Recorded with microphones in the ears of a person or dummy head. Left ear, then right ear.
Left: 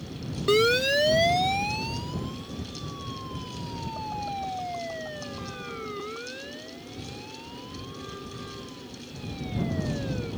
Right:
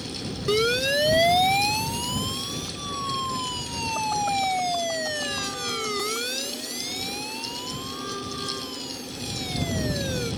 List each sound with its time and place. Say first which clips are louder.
0.5 s a siren: left 1 dB; 25° left (ahead or behind); by 10.3 s 90° right